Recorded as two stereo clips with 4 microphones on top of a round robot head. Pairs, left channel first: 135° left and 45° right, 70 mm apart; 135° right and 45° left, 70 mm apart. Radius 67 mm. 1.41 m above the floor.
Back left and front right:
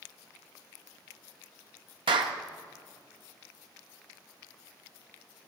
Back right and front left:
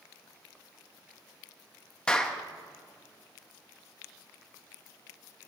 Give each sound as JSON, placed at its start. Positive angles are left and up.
{"t": 2.1, "sound": "a clap", "azimuth_deg": -55, "distance_m": 0.7}